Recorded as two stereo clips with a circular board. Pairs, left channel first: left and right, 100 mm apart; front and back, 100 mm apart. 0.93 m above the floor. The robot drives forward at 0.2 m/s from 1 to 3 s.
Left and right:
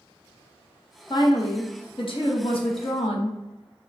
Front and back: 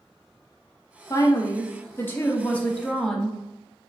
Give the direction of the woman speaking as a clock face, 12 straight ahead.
10 o'clock.